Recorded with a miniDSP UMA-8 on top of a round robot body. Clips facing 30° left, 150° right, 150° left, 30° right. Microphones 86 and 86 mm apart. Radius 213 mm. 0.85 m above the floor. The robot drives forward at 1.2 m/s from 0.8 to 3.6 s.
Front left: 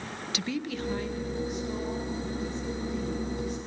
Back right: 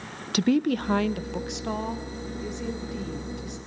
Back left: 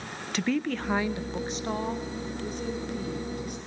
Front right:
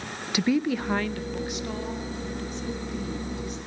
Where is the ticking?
No ticking in this recording.